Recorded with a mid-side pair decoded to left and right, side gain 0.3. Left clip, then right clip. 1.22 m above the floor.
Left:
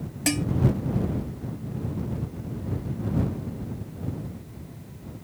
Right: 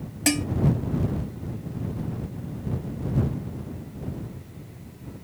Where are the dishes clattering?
30° right.